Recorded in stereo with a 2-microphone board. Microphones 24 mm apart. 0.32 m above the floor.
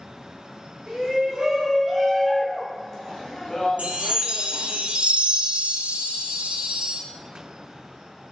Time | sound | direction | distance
0.9 | a shout | 40° right (ahead or behind) | 1.4 m
3.8 | a chime | 80° right | 0.6 m